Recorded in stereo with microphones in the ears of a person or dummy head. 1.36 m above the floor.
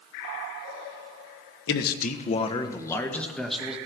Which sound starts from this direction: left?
A man speaking, at 1.7 s.